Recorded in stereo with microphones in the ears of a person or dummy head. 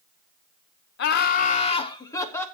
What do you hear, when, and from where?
1.0 s laughter: 60° left (ahead or behind), 0.8 m; by 2.5 s 10° left (ahead or behind), 1.3 m